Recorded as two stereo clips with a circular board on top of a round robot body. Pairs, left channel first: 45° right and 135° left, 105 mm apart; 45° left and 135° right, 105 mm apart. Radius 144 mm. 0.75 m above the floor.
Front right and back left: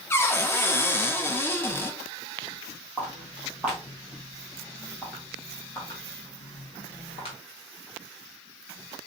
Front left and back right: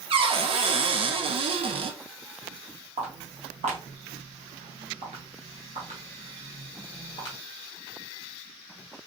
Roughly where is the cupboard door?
Right.